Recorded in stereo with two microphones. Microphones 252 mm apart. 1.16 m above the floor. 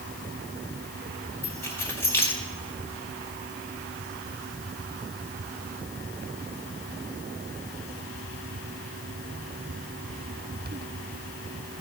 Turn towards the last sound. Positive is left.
turn(degrees=10)  # may be behind; listen again after turning